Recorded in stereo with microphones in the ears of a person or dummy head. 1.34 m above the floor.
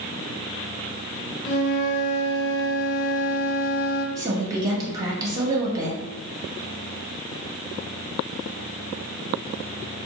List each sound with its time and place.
1.4 s a flute: 60° left (ahead or behind), 0.8 m
4.2 s a woman speaking: 20° right (ahead or behind), 1.3 m